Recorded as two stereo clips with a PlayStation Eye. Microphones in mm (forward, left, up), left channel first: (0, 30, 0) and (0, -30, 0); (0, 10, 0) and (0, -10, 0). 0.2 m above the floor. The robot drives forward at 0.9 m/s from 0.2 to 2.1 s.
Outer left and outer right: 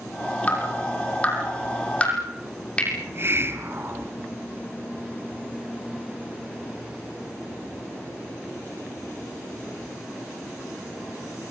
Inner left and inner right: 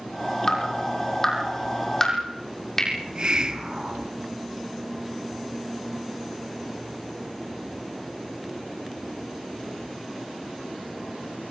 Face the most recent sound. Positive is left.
turn(degrees=-45)  # may be behind; listen again after turning